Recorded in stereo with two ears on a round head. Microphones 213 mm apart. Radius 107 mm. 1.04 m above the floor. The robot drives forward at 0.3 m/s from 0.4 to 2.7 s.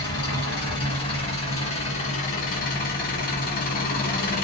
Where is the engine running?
20° left (ahead or behind), 1.4 m; by 4.4 s 35° left (ahead or behind), 0.8 m.